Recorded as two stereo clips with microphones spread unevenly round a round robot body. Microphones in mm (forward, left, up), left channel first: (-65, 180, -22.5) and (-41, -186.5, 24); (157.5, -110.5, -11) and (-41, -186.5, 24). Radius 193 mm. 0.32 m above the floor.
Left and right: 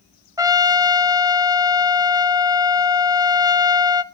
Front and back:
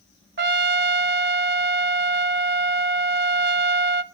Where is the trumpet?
170° right, 0.8 m.